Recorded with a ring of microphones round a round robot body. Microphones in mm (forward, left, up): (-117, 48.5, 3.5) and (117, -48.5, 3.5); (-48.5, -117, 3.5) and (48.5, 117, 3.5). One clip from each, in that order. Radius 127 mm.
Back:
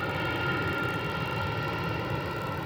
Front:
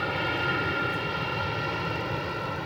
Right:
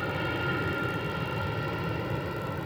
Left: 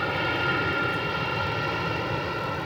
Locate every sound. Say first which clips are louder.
0.0 s an aircraft: front 3 dB, left 5 dB; 35° left; by 2.7 s 45° left